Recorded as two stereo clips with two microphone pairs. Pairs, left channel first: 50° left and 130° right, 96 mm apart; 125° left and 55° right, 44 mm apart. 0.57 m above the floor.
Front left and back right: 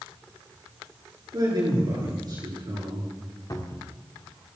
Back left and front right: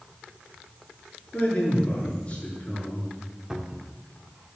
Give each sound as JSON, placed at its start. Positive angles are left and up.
{"t": 1.3, "sound": "a man speaking", "azimuth_deg": -175, "distance_m": 7.5}
{"t": 3.5, "sound": "a cupboard door", "azimuth_deg": 20, "distance_m": 1.4}